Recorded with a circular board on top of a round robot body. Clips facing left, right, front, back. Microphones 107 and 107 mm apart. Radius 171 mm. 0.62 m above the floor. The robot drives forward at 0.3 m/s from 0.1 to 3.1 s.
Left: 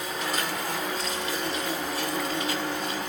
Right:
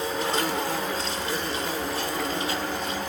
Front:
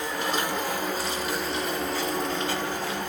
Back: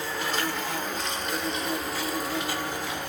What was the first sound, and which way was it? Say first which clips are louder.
An insect: right 4 dB, front 2 dB; 55° right.